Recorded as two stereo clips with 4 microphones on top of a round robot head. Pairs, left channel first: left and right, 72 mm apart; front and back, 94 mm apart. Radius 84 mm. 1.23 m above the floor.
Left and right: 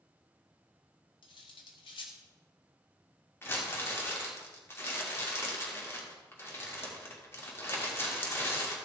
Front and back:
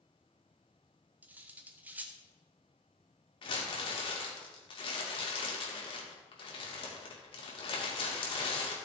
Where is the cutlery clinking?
110° left, 1.1 m.